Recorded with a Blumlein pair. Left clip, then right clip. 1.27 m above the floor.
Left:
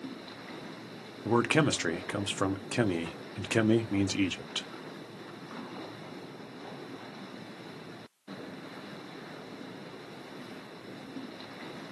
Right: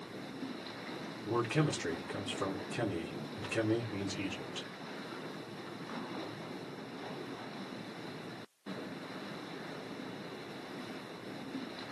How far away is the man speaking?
About 0.5 m.